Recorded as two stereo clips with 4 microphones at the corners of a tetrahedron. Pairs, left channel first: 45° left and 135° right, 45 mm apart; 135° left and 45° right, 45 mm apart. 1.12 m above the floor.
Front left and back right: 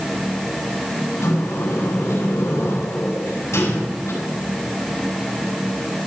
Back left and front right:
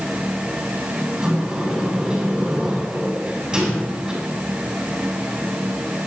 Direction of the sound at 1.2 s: 25° left.